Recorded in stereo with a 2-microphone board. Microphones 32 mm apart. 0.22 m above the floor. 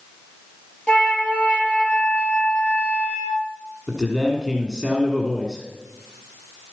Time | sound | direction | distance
0.9 | a flute | 30° left (ahead or behind) | 2.5 m
3.9 | a man speaking | centre (ahead or behind) | 1.7 m